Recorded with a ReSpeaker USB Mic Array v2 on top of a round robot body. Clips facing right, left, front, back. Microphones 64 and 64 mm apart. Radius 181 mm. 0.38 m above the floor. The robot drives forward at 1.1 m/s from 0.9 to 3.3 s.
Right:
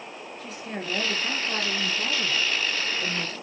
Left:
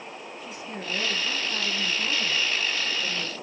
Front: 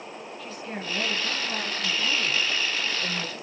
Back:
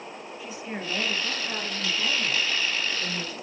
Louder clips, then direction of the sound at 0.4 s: Right 3 dB, back 1 dB; 100° right.